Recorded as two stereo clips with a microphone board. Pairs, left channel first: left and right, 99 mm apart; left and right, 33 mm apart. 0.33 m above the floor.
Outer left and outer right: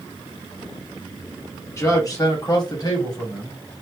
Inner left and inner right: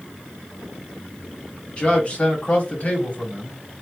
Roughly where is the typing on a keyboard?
I don't hear typing on a keyboard.